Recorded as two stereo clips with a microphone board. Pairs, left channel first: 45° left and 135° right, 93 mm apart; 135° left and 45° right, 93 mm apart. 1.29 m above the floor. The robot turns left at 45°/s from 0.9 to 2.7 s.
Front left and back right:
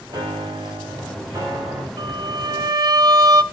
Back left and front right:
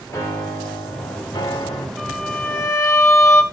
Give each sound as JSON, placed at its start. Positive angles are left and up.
{"t": 0.1, "sound": "a piano", "azimuth_deg": -165, "distance_m": 3.0}
{"t": 2.0, "sound": "a violin", "azimuth_deg": -145, "distance_m": 1.7}